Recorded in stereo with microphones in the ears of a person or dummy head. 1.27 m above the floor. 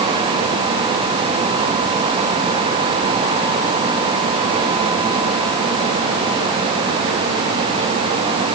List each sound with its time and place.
Only background noise.